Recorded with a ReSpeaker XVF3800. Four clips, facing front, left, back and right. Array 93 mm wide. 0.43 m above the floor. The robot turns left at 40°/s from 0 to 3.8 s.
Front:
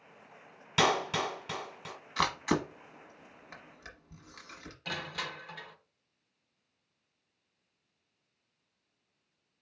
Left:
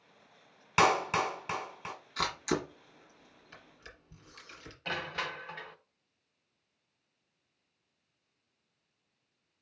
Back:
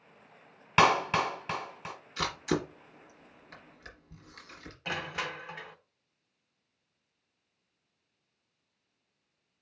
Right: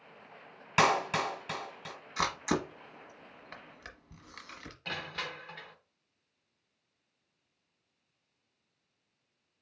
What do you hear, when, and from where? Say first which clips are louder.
0.8 s a clap: left 1 dB, back 4 dB; 170° left, 1.4 m; by 1.9 s 125° left, 1.4 m
2.2 s a camera shutter: right 1 dB, front 2 dB; 15° right, 1.1 m; by 4.8 s 80° right, 1.1 m
4.8 s crushing: left 3 dB, back 3 dB; 160° left, 0.7 m